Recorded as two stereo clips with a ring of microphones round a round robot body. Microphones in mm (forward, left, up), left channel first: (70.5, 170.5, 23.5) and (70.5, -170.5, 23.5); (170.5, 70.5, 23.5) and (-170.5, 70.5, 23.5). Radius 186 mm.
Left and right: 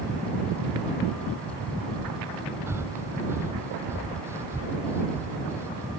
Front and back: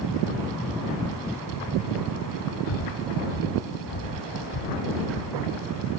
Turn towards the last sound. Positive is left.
turn(degrees=-5)